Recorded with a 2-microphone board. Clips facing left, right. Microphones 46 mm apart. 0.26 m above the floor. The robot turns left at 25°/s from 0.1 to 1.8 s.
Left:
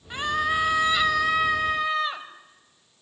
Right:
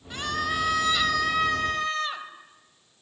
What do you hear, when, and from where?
0.1 s a scream: 20° left (ahead or behind), 1.5 m; by 2.3 s 10° left (ahead or behind), 1.5 m